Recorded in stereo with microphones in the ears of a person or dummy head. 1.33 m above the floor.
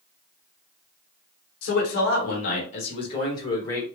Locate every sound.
1.6 s a man speaking: 70° left (ahead or behind), 1.5 m; by 3.8 s 20° left (ahead or behind), 1.7 m